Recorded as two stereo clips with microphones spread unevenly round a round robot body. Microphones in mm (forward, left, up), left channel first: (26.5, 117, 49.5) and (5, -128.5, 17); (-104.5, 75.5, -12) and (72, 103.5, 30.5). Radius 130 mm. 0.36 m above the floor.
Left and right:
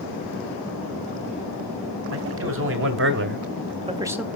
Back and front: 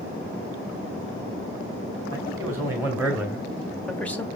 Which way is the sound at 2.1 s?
75° right.